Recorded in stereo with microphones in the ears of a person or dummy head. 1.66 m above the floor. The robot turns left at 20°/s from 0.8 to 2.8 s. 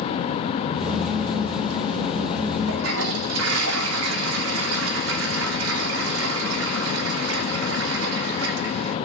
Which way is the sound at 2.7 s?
80° right.